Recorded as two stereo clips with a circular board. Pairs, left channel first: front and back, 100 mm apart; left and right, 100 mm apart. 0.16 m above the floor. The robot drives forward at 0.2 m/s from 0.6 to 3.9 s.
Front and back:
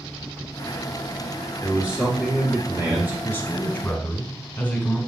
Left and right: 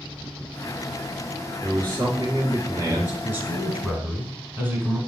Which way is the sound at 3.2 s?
40° right.